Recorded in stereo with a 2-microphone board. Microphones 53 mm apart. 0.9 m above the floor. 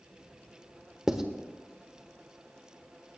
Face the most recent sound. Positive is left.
turn(degrees=-10)  # may be behind; listen again after turning